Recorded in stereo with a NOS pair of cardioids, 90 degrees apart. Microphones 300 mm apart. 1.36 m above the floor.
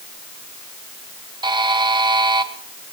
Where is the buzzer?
15° right, 1.2 m.